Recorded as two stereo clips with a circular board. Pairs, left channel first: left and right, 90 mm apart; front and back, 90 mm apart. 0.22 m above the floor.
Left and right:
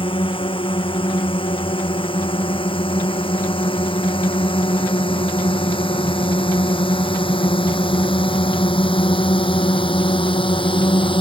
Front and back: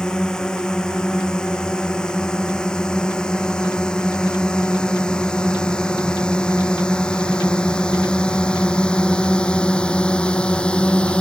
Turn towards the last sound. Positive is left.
turn(degrees=80)